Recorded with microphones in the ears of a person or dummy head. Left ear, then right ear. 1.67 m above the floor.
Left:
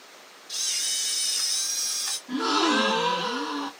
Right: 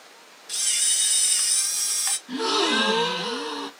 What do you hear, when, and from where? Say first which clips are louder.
0.5 s a camera shutter: right 3 dB; 50° right (ahead or behind), 1.3 m
2.3 s a gasp: even; 80° right, 2 m